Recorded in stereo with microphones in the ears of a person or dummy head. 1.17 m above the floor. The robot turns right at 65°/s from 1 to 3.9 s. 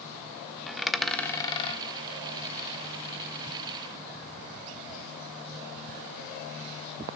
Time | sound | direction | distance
0.7 | a dropped coin | centre (ahead or behind) | 1.0 m